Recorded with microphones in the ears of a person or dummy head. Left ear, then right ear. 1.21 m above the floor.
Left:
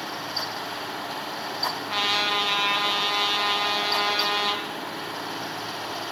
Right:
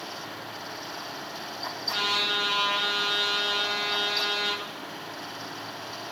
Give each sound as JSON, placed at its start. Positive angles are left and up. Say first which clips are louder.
{"t": 1.9, "sound": "a trumpet", "louder": "left 1 dB", "side_deg": 25, "distance_m": 1.1}